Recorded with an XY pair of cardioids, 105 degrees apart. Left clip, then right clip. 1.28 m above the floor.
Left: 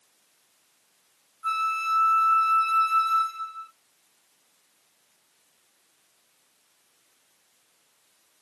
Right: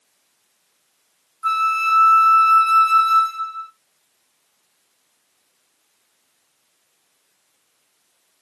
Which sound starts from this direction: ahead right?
A flute, at 1.4 s.